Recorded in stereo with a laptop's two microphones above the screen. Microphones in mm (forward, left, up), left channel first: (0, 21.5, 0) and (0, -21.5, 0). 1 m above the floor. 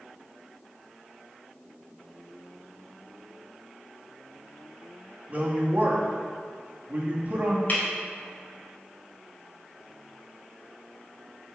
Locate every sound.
5.3 s a woman speaking: 35° right (ahead or behind), 1.9 m
7.7 s breaking glass: 40° left (ahead or behind), 3 m